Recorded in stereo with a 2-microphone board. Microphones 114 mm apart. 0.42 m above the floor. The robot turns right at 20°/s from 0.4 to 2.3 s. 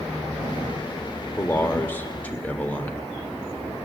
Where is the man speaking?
20° left (ahead or behind), 0.8 m; by 3.0 s 15° left (ahead or behind), 0.8 m.